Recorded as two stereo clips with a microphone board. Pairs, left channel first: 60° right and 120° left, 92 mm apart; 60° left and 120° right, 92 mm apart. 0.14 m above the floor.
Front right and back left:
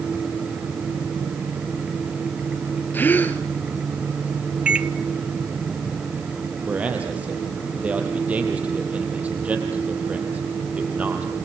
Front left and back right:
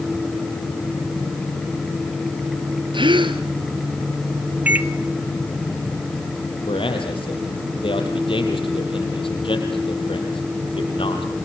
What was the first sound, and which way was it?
A gasp, 130° right.